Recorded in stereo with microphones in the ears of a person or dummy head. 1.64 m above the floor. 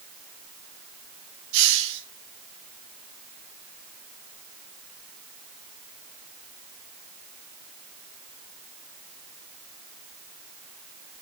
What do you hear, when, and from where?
1.5 s a hiss: 70° right (ahead or behind), 2.5 m